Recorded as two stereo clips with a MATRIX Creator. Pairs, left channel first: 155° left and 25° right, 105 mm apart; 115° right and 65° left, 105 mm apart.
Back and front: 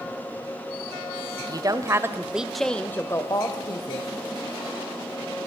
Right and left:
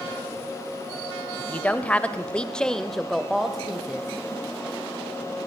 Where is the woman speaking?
45° right, 1.3 m; by 4.1 s 150° left, 1.5 m.